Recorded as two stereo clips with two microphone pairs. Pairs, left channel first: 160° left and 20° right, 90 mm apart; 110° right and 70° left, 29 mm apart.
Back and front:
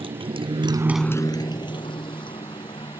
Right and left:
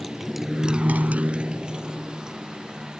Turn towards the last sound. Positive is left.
turn(degrees=140)